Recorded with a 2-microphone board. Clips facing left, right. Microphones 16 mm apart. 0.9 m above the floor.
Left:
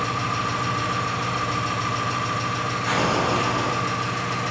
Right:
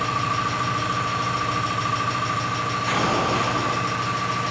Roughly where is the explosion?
Centre.